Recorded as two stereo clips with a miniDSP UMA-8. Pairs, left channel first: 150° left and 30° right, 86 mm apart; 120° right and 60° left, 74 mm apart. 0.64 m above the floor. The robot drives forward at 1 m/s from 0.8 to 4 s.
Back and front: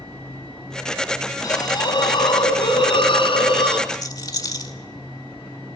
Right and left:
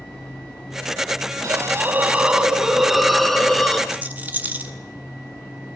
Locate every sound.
1.4 s a hiss: 105° left, 1.2 m; by 3.8 s 155° left, 3 m
3.9 s a rattle: 120° left, 1.8 m